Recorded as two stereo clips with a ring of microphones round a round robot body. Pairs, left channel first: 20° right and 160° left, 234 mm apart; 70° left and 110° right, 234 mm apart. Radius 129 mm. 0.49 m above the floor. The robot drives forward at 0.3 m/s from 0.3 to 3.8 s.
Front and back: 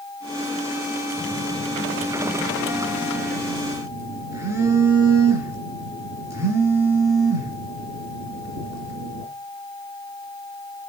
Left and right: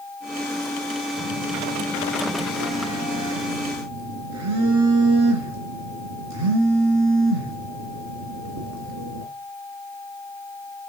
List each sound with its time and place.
1.2 s a phone buzzing: 110° right, 2.5 m; by 9.2 s 125° right, 3 m